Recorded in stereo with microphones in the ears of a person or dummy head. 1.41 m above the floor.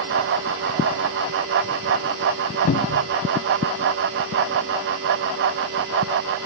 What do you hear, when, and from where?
2.7 s a cupboard door: 50° left (ahead or behind)